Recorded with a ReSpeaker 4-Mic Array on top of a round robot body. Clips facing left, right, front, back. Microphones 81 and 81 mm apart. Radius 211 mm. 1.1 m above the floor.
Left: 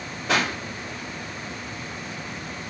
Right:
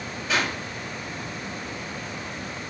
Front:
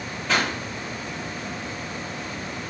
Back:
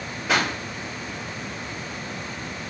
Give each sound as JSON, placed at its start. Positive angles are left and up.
{"t": 0.3, "sound": "a pop", "azimuth_deg": 100, "distance_m": 5.0}